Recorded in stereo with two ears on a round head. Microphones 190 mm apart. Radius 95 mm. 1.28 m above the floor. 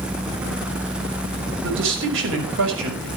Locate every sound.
1.6 s a man speaking: 65° right (ahead or behind), 6 m